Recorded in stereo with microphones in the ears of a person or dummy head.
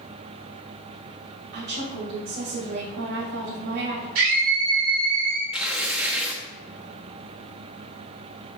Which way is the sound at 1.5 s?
55° right (ahead or behind).